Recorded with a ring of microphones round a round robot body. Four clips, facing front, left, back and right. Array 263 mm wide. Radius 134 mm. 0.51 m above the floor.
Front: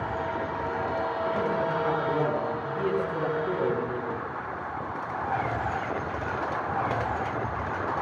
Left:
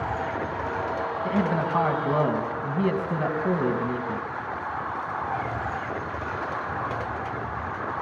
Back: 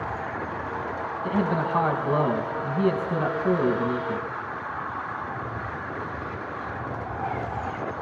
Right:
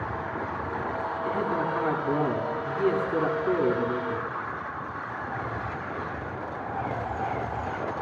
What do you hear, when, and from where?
1.2 s a man speaking: 130° left, 4.5 m